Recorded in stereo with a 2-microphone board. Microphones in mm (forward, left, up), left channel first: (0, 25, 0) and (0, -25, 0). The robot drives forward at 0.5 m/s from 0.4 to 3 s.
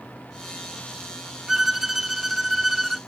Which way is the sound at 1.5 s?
10° right (ahead or behind).